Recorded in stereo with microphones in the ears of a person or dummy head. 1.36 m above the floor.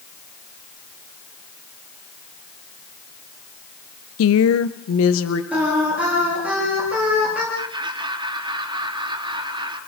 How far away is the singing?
About 8 m.